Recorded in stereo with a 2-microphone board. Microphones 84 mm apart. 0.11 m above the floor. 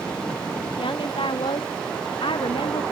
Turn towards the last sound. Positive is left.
turn(degrees=85)